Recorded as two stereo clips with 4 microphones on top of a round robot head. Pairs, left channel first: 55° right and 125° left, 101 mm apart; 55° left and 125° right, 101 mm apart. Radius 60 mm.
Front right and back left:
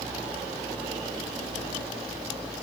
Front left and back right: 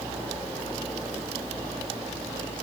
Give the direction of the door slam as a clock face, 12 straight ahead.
No door slam in this recording.